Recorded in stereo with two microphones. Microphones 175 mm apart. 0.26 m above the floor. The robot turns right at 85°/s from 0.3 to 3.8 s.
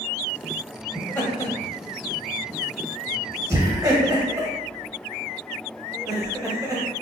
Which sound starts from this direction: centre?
Laughter, at 0.9 s.